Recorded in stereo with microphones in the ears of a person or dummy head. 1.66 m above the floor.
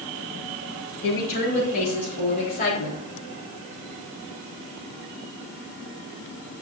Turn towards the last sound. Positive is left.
turn(degrees=50)  # may be behind; listen again after turning